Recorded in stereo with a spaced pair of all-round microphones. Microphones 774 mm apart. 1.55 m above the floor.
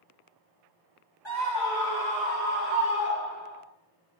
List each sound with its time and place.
1.2 s a scream: 35° left (ahead or behind), 3 m; by 3.6 s 15° left (ahead or behind), 6 m